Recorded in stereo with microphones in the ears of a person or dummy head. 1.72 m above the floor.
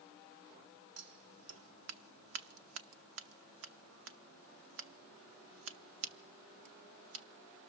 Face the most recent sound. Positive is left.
turn(degrees=-80)